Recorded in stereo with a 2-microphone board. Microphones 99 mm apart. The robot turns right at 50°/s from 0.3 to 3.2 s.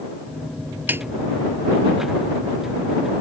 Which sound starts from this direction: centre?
A snare drum, at 0.9 s.